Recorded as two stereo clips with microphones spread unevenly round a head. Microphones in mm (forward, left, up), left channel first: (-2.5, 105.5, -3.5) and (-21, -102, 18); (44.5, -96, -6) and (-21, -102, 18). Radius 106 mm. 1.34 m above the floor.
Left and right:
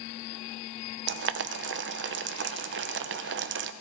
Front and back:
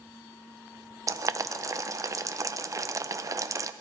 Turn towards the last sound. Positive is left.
turn(degrees=-135)